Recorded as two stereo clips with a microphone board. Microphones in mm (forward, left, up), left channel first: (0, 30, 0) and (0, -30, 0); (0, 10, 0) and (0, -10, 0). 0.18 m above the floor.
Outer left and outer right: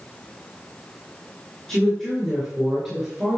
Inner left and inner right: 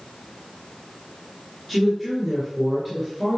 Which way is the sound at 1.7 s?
5° left (ahead or behind).